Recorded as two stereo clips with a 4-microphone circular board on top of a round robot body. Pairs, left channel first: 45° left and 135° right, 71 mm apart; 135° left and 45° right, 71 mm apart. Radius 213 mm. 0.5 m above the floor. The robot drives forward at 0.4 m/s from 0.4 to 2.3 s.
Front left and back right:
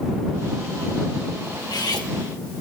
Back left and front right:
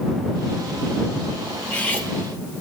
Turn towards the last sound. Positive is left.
turn(degrees=70)